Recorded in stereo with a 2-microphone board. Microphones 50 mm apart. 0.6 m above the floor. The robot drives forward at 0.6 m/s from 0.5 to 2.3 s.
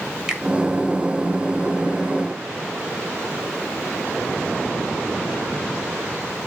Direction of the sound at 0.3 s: 15° right (ahead or behind).